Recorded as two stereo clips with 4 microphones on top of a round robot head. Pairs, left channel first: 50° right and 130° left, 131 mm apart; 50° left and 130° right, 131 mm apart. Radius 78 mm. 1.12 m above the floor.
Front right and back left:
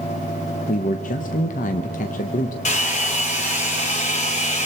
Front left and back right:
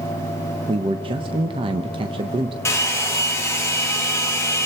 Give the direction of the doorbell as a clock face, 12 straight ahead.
I don't hear a doorbell.